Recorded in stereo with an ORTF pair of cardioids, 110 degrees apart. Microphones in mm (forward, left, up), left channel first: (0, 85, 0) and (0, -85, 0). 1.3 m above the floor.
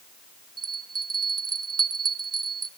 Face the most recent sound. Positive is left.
turn(degrees=-25)